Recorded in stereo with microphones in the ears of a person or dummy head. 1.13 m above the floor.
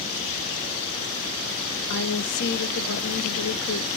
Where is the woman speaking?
55° left (ahead or behind), 0.7 m.